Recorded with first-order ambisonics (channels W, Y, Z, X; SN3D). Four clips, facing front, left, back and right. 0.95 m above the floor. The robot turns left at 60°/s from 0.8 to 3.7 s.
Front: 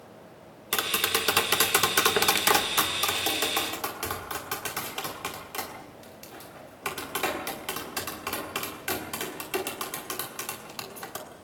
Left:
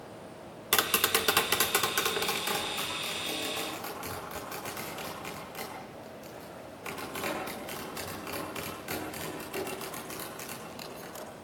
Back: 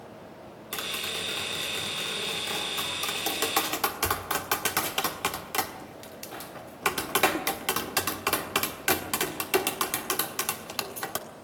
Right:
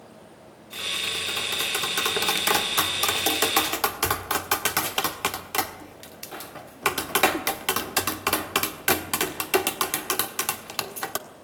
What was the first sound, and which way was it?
Tapping, 65° left.